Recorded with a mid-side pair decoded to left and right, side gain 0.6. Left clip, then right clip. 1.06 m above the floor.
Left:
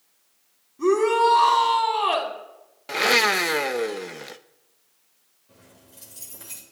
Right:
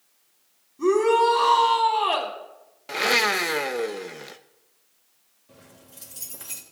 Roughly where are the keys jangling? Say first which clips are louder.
Right 2 dB; ahead right.